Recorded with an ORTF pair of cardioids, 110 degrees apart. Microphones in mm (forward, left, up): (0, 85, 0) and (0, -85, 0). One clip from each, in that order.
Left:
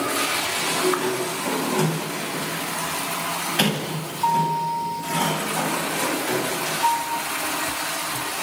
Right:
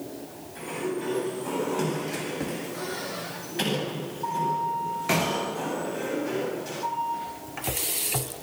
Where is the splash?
No splash in this recording.